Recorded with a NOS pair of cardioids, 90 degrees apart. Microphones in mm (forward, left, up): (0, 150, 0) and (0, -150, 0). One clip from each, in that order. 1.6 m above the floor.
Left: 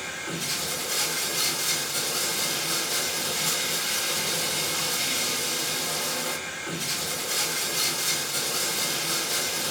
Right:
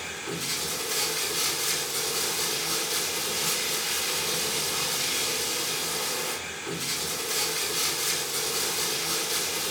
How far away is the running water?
About 3.5 m.